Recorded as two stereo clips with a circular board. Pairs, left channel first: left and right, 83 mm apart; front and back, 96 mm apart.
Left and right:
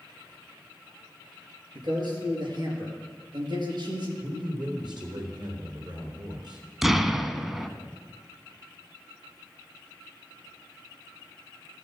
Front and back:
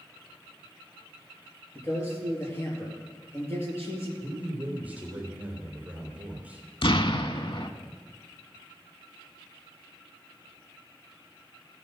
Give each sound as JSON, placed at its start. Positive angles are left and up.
{"t": 1.8, "sound": "a man speaking", "azimuth_deg": -65, "distance_m": 3.5}
{"t": 4.2, "sound": "a man speaking", "azimuth_deg": -110, "distance_m": 3.5}
{"t": 6.8, "sound": "an explosion", "azimuth_deg": -5, "distance_m": 0.5}